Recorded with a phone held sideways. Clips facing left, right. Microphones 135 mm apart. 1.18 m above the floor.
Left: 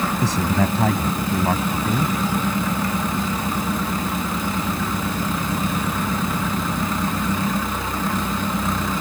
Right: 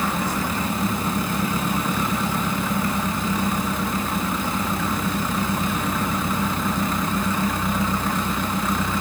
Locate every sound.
0.2 s a man speaking: 80° left